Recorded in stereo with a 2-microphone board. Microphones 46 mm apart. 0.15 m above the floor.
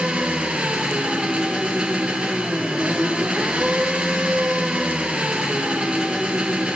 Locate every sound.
0.0 s an engine running: 25° right (ahead or behind), 2.0 m